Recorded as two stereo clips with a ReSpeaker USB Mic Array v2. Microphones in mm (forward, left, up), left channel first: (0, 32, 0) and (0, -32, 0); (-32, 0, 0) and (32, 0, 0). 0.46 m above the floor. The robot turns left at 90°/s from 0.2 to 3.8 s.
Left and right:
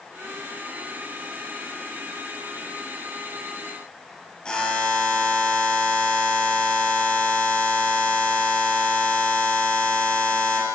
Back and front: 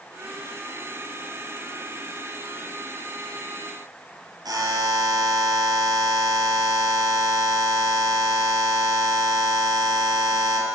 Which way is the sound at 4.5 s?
10° left.